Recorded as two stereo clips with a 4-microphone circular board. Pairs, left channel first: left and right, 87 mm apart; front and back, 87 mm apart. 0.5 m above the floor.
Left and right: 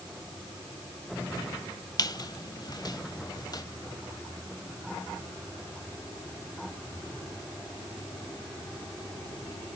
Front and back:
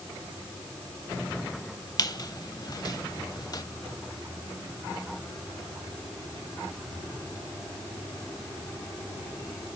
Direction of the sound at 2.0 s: 45° left.